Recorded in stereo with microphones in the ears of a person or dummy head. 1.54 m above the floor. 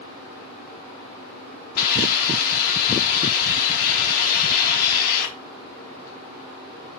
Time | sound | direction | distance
1.8 | a hiss | 55° left (ahead or behind) | 1.1 m